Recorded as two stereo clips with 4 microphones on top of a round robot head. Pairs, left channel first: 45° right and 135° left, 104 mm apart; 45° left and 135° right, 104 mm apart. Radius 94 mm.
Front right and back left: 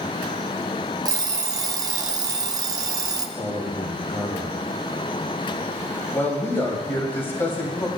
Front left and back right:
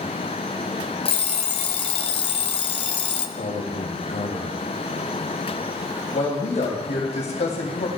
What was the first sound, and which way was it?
An alarm clock, 80° left.